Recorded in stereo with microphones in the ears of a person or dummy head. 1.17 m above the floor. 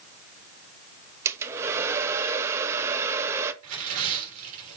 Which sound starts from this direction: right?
Tearing paper, at 3.6 s.